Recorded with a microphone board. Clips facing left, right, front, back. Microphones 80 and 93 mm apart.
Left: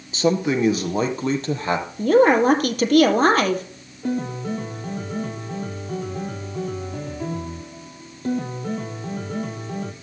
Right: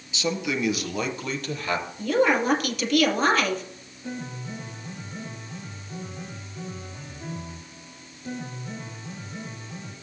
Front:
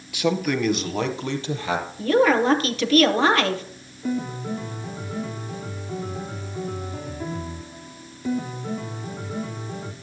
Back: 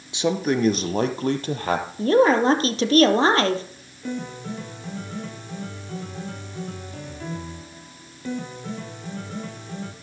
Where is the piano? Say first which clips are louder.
Left 10 dB, front 4 dB; 80° left, 2.5 m.